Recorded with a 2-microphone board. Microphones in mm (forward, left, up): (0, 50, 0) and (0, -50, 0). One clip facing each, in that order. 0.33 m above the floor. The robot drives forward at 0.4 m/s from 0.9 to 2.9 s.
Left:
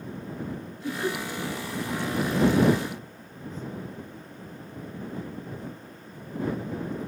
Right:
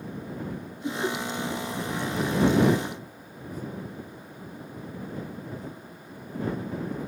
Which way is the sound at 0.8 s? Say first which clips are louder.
Even; 20° right (ahead or behind).